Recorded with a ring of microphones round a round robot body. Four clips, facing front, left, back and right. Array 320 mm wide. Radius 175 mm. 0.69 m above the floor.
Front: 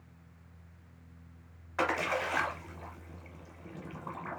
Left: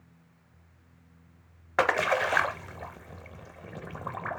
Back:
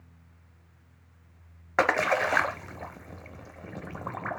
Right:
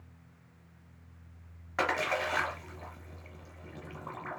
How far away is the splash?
About 0.7 m.